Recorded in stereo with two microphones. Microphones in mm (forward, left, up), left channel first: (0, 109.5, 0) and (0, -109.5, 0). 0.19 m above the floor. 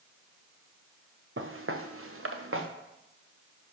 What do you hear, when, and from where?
1.4 s footsteps: 65° right (ahead or behind), 1.2 m; by 2.7 s 70° right (ahead or behind), 1.5 m